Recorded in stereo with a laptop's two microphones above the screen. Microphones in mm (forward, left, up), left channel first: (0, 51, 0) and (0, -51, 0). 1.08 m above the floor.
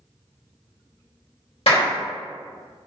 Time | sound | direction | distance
1.7 | a clap | 65° left (ahead or behind) | 1.4 m